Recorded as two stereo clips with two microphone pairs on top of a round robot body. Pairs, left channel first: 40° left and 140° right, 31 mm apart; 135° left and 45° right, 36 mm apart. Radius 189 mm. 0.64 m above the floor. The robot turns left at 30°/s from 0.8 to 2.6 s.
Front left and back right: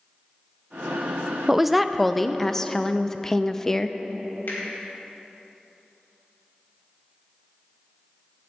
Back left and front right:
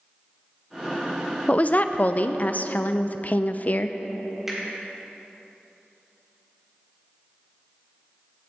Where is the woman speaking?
165° left, 0.5 m; by 4.0 s 130° left, 0.5 m.